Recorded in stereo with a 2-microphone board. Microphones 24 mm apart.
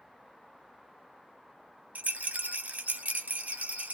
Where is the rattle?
85° right, 0.8 m.